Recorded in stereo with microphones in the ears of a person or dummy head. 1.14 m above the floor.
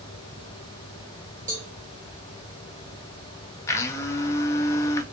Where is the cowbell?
35° right (ahead or behind), 1.2 m.